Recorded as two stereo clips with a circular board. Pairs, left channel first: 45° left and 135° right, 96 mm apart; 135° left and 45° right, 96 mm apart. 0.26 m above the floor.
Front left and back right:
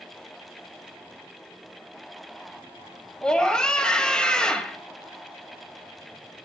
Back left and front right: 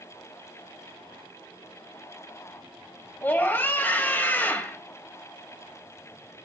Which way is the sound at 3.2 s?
110° left.